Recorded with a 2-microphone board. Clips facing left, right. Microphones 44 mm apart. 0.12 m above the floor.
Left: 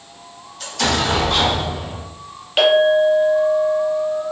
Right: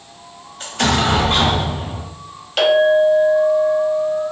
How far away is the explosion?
About 1.0 m.